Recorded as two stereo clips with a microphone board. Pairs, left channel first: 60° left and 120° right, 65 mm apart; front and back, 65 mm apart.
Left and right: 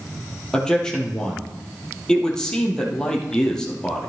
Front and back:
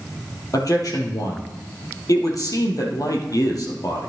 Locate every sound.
0.5 s a man speaking: 20° right, 3 m